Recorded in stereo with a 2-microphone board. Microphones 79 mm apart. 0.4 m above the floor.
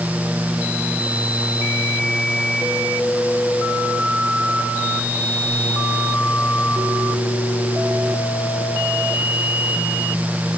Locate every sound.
Only background noise.